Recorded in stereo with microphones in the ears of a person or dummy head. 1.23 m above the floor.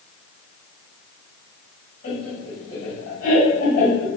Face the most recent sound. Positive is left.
turn(degrees=45)  # may be behind; listen again after turning